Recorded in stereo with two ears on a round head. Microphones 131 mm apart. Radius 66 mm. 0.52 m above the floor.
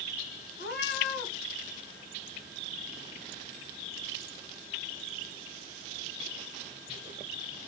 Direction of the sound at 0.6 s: 75° left (ahead or behind).